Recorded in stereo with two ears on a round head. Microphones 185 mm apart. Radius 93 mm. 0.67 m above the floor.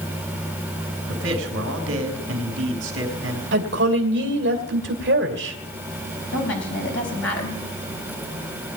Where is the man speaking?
60° right (ahead or behind), 3.5 m.